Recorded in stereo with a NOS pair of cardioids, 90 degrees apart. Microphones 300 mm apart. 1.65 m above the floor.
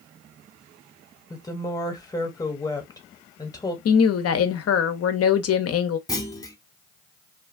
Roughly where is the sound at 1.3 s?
Ahead.